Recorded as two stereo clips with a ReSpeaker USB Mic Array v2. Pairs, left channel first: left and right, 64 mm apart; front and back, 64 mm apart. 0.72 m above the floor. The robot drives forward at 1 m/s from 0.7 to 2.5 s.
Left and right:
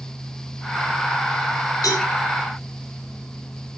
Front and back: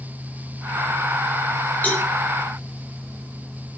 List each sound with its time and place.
1.8 s a cowbell: 65° left, 5 m